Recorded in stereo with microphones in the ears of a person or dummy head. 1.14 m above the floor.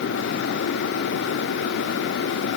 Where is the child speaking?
No child speaking in this recording.